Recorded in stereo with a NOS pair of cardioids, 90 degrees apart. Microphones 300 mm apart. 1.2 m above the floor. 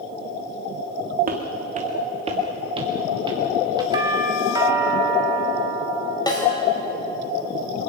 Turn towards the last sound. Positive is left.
turn(degrees=15)